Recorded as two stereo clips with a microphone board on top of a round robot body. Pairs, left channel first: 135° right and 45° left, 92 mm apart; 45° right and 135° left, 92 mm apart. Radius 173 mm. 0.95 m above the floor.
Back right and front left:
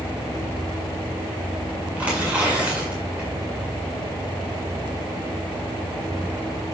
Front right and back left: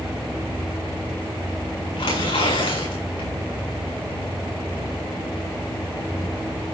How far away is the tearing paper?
About 8.5 m.